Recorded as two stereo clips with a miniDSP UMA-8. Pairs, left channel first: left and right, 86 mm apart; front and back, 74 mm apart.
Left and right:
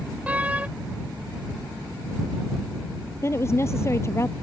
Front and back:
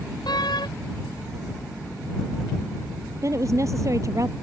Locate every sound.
0.3 s a door slam: 15° right
3.2 s a woman speaking: 145° left